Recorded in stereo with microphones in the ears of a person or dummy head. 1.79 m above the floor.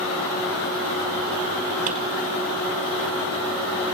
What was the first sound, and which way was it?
A drawer, 35° right (ahead or behind).